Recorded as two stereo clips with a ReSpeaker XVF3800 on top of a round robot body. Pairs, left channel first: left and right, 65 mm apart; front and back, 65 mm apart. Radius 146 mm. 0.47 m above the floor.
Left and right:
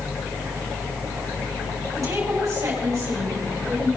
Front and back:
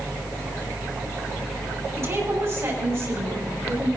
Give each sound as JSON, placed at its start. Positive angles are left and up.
{"t": 1.9, "sound": "a woman speaking", "azimuth_deg": -130, "distance_m": 4.0}